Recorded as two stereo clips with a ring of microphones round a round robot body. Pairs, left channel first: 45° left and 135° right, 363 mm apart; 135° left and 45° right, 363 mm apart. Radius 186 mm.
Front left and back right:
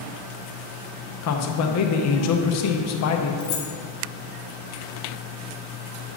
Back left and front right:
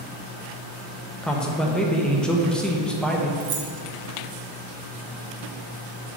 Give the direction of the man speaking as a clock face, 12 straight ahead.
10 o'clock.